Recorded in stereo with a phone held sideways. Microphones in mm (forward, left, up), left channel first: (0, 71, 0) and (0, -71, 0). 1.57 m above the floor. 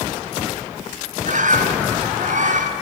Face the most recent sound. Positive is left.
turn(degrees=-65)  # may be behind; listen again after turning